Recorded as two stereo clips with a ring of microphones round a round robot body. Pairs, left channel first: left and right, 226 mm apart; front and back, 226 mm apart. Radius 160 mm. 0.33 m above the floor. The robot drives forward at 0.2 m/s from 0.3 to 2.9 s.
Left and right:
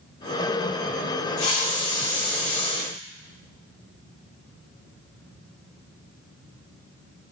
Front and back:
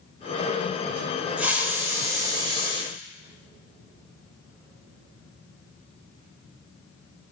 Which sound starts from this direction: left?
A hiss, at 1.4 s.